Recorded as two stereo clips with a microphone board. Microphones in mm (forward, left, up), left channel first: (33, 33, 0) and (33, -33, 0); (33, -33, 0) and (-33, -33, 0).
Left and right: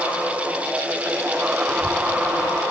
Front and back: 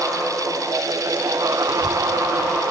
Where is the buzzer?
No buzzer in this recording.